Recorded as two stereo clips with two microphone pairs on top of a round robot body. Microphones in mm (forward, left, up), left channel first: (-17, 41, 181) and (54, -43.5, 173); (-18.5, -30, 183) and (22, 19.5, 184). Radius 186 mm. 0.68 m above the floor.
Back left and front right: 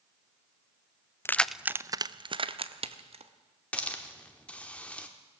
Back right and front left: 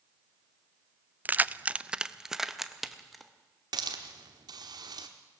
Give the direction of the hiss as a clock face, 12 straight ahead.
10 o'clock.